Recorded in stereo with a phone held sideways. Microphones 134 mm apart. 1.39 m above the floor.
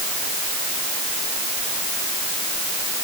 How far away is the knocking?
No knocking in this recording.